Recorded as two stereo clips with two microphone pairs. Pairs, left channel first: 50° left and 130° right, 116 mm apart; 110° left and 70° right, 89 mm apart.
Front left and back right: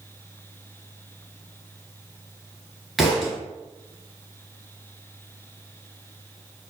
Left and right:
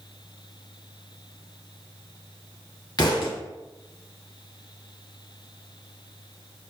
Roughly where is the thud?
Behind left.